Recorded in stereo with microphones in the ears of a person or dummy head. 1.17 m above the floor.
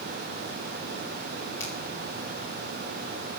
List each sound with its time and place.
1.6 s a finger snap: 15° left (ahead or behind), 4.5 m